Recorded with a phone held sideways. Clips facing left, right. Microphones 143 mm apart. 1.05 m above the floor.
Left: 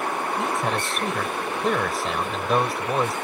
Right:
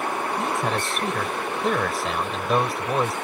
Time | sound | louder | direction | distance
0.4 | a man speaking | even | centre (ahead or behind) | ?